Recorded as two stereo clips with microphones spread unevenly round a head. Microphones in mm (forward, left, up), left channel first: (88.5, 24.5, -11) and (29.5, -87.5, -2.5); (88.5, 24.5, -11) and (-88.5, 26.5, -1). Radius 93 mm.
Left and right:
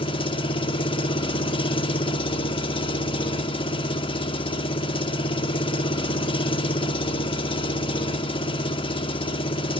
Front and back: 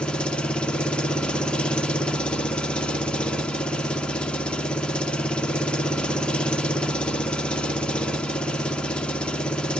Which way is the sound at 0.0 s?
85° left.